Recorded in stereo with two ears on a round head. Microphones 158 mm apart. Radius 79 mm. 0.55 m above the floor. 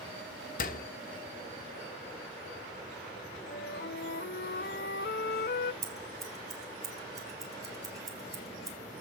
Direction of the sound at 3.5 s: 60° left (ahead or behind).